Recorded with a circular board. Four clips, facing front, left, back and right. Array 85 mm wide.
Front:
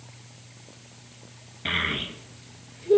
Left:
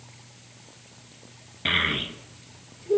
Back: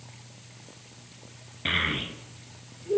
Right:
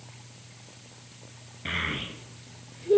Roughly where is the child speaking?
Left.